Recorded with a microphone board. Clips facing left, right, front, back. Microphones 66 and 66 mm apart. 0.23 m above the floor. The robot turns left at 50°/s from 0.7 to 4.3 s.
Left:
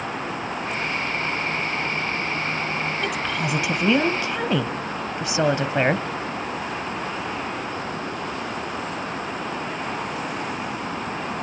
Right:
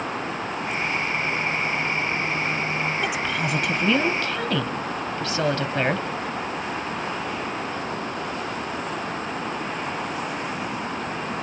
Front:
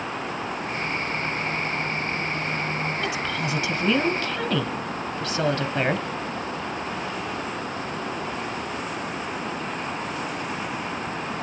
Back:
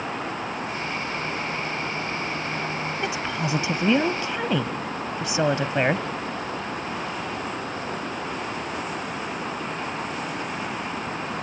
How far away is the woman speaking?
About 1.0 m.